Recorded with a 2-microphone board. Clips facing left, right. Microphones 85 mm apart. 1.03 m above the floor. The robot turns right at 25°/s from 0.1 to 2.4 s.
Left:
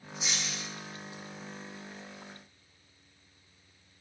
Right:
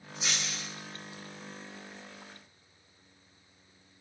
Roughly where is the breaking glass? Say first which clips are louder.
Right 1 dB; right.